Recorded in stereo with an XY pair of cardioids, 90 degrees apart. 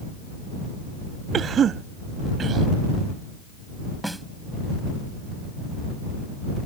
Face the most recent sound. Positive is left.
turn(degrees=-5)